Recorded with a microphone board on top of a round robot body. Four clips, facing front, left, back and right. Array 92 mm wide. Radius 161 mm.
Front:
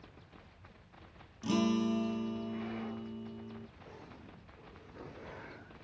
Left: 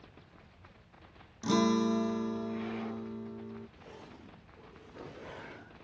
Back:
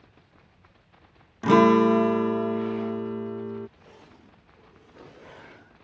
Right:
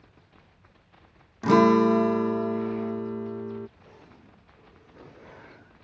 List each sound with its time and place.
1.4 s a guitar: 145° right